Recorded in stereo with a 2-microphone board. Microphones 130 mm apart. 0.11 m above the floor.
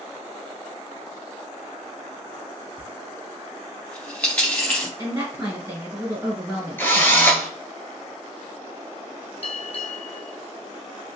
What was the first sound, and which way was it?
A dropped coin, 10° left (ahead or behind).